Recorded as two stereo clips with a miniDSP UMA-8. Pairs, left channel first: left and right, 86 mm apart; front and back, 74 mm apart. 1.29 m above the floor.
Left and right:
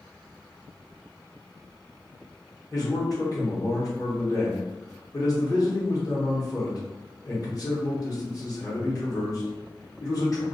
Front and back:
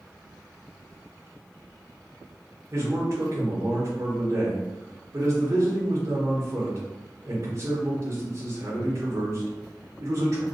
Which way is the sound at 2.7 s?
130° left.